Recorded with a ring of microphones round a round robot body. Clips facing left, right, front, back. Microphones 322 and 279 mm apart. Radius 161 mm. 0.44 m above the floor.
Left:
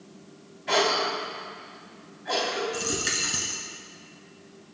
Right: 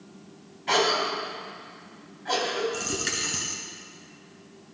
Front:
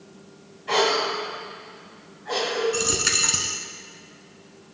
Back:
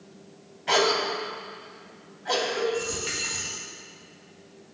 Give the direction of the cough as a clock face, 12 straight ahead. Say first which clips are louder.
Even, front 1 dB; 5 o'clock.